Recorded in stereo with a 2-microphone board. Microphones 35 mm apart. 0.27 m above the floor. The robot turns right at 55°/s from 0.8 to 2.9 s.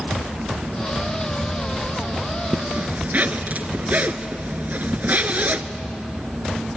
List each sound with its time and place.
2.5 s a zipper: 70° right (ahead or behind), 1.0 m; by 5.6 s 50° right (ahead or behind), 1.0 m